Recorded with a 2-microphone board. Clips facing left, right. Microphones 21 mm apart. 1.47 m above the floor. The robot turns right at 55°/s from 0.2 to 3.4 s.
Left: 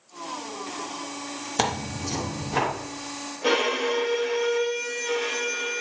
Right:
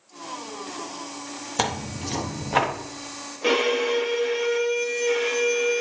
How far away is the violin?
About 1.5 m.